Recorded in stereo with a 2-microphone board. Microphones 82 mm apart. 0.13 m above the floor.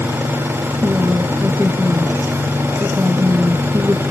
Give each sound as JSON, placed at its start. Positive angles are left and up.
{"t": 0.8, "sound": "a woman speaking", "side_deg": -20, "distance_m": 1.8}